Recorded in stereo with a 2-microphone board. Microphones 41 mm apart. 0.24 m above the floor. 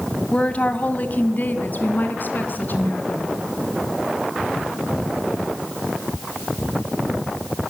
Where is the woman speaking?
30° left (ahead or behind), 1.8 m; by 3.3 s 50° left (ahead or behind), 4 m.